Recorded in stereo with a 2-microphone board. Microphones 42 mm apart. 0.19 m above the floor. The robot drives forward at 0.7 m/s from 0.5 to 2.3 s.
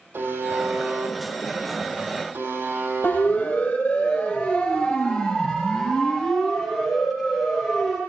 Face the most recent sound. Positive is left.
turn(degrees=-5)  # may be behind; listen again after turning